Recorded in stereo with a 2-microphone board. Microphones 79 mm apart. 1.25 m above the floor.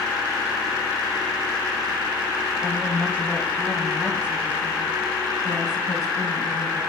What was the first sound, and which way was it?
A woman speaking, 20° right (ahead or behind).